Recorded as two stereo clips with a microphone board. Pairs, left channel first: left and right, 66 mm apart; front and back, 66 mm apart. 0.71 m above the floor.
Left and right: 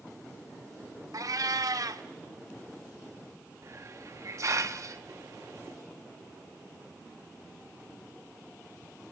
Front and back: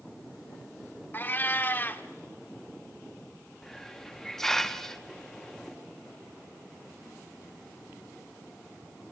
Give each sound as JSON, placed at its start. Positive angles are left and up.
{"t": 1.1, "sound": "a cat meowing", "azimuth_deg": -60, "distance_m": 0.9}
{"t": 3.6, "sound": "a hiss", "azimuth_deg": -80, "distance_m": 0.9}